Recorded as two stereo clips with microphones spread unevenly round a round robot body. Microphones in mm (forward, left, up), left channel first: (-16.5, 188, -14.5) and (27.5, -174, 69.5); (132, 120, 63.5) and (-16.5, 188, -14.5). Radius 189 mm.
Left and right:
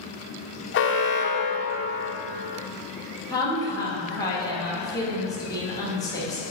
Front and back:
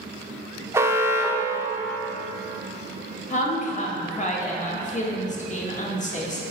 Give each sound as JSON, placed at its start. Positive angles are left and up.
{"t": 0.7, "sound": "an alarm", "azimuth_deg": 120, "distance_m": 0.6}
{"t": 3.3, "sound": "a woman speaking", "azimuth_deg": 35, "distance_m": 1.4}